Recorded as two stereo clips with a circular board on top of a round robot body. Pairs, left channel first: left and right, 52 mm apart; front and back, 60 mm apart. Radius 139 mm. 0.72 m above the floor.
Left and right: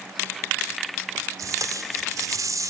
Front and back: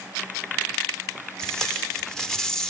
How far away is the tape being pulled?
About 2 m.